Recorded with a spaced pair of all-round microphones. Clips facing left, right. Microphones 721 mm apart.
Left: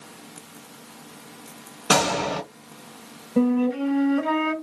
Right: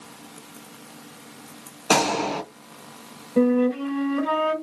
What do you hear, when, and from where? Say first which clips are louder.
1.9 s a gunshot: right 1 dB; 45° left (ahead or behind), 1.2 m
3.4 s a flute: right 1 dB; 20° left (ahead or behind), 1.2 m